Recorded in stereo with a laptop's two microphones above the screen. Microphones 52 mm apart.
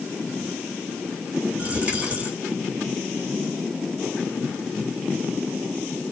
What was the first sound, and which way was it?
A dropped coin, 25° right (ahead or behind).